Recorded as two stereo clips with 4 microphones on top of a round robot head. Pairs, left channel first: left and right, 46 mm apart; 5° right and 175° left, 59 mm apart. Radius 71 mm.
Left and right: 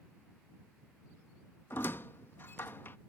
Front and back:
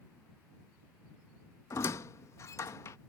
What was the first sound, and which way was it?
A squeak, 35° left.